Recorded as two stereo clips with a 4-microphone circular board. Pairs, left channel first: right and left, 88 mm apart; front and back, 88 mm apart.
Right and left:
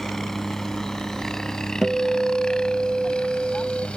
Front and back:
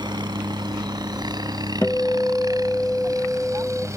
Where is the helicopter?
175° right; by 4.0 s 160° right.